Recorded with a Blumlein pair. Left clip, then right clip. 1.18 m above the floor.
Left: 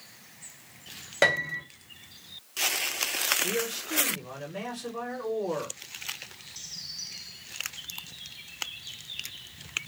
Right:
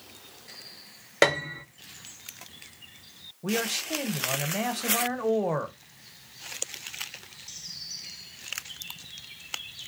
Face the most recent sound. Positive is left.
turn(degrees=-35)